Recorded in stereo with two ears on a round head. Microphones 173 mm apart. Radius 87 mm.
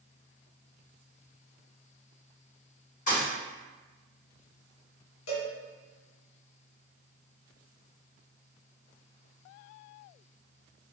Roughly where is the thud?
Left.